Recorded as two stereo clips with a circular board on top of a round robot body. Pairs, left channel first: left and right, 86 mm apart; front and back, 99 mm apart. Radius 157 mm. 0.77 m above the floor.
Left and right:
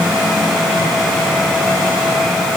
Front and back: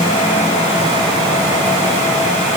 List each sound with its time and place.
Only background noise.